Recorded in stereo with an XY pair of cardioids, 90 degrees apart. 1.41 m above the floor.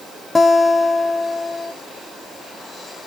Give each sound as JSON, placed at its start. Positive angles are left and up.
{"t": 0.3, "sound": "a guitar", "azimuth_deg": 25, "distance_m": 0.7}